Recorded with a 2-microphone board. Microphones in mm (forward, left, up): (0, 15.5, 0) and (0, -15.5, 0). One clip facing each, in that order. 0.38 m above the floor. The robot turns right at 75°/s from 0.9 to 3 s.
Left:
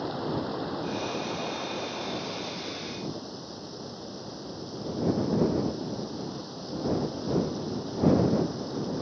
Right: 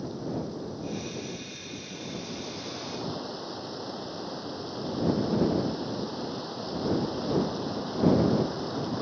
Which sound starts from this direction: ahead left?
Running water, at 0.0 s.